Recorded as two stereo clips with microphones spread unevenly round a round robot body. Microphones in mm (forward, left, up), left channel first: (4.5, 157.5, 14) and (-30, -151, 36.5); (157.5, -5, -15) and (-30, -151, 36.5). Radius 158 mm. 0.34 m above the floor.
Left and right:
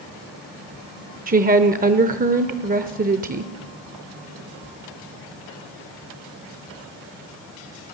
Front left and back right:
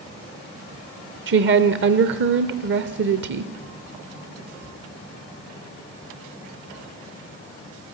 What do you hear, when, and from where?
1.3 s a woman speaking: 145° right, 0.9 m